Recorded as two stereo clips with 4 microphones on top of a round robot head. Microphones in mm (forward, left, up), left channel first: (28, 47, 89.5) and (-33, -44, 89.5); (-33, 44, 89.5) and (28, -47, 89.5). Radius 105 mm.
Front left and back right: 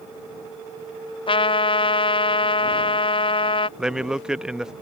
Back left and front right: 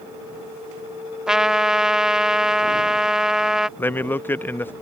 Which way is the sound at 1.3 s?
30° left.